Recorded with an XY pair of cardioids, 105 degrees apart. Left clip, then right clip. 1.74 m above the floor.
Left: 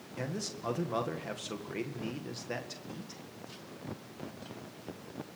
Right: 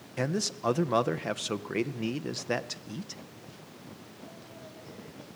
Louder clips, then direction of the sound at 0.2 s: Right 8 dB; 50° right.